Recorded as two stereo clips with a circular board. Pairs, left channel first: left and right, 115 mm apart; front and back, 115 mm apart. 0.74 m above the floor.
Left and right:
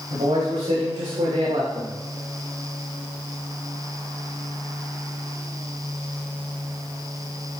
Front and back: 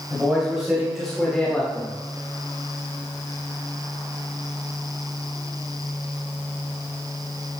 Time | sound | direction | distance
0.1 | a man speaking | 100° right | 4 m